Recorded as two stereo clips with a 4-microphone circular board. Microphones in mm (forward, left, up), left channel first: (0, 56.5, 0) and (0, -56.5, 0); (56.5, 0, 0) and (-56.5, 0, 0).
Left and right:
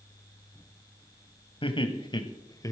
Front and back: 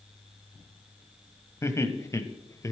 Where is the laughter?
60° left, 1.5 m; by 2.7 s 45° left, 1.0 m.